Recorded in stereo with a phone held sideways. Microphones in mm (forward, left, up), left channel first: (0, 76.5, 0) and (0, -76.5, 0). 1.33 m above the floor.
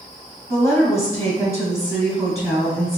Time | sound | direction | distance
0.5 | a woman speaking | 20° left (ahead or behind) | 1.5 m